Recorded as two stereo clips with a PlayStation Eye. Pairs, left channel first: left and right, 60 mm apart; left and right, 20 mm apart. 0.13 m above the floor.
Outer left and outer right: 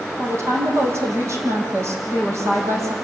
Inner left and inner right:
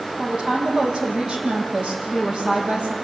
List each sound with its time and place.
0.2 s a woman speaking: 50° right (ahead or behind), 5.5 m